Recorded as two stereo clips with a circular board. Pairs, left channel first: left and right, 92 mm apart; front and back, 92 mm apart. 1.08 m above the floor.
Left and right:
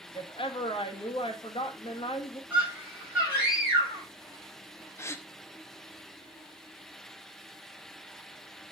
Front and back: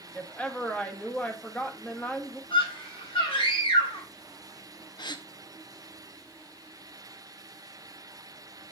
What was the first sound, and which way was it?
A woman speaking, 75° left.